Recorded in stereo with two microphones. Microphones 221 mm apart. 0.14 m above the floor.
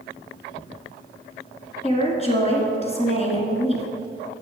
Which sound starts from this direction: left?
A woman speaking, at 1.8 s.